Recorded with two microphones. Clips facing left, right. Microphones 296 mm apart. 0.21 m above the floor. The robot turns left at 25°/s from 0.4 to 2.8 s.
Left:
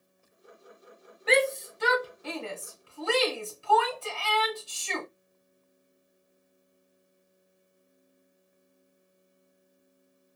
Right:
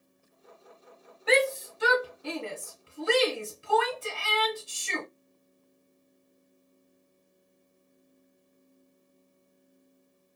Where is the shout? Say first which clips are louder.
Even; centre (ahead or behind), 1.2 m; by 5.1 s 20° right (ahead or behind), 1.2 m.